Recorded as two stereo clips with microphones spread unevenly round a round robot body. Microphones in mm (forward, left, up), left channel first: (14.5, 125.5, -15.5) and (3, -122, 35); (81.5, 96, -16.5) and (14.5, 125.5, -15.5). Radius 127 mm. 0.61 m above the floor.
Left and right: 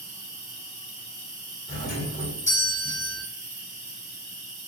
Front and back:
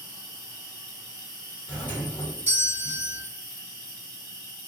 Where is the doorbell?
25° left, 1.4 m.